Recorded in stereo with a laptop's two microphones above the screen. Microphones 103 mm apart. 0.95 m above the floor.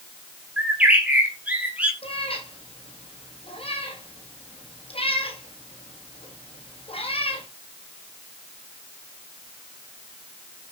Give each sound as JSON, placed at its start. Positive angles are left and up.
{"t": 0.6, "sound": "a bird", "side_deg": -10, "distance_m": 2.5}
{"t": 2.0, "sound": "a cat meowing", "side_deg": 65, "distance_m": 4.0}